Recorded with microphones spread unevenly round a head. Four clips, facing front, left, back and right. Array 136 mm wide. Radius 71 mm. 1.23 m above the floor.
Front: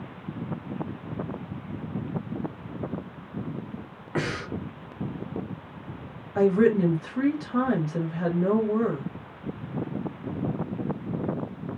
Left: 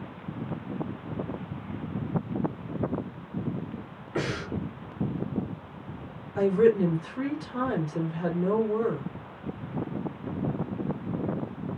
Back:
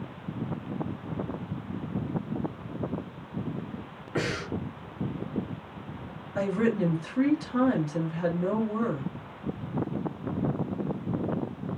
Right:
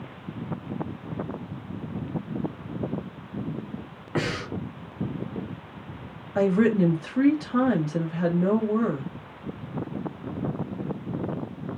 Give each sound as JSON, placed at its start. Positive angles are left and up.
{"t": 4.2, "sound": "breathing", "azimuth_deg": -60, "distance_m": 2.5}
{"t": 6.3, "sound": "a woman speaking", "azimuth_deg": -70, "distance_m": 2.5}